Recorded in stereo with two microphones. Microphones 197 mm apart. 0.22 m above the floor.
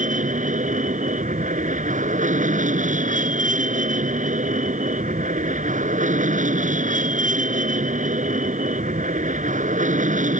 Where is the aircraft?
40° right (ahead or behind).